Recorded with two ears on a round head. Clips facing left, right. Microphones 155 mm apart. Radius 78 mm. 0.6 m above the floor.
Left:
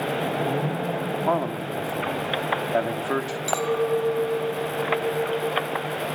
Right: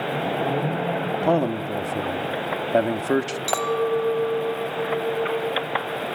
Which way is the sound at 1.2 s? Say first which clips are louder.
Right 5 dB; 30° right (ahead or behind).